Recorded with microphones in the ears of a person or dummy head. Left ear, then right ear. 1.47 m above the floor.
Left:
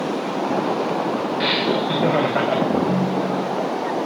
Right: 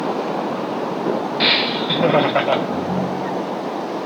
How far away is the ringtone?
About 1.3 m.